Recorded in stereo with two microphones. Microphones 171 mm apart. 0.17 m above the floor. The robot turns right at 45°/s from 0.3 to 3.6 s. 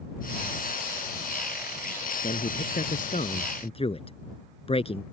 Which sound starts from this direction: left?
A man speaking, at 2.2 s.